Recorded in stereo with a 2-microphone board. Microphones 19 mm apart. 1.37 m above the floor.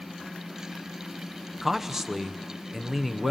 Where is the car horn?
No car horn in this recording.